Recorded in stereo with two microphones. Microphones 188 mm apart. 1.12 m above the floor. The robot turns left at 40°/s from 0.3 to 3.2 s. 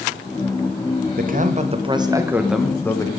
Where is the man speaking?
120° right, 0.9 m; by 3.1 s 160° left, 0.9 m.